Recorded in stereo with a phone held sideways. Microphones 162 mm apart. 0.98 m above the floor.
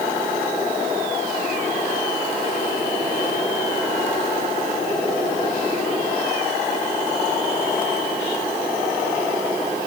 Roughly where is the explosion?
No explosion in this recording.